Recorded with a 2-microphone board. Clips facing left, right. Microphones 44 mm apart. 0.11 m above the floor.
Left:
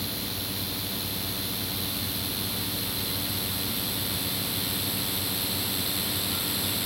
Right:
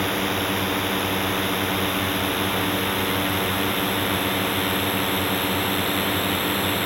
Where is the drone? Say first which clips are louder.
Right 12 dB; 50° right (ahead or behind); by 6.8 s 40° right (ahead or behind).